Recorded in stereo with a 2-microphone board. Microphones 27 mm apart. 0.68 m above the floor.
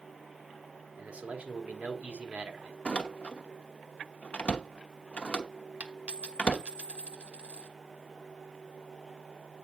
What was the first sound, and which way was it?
A man speaking, 55° right (ahead or behind).